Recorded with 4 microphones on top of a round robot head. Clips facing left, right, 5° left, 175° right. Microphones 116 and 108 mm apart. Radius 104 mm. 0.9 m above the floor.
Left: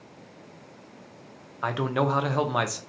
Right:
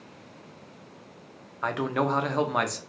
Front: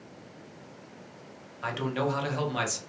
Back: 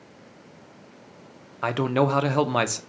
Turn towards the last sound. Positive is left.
turn(degrees=175)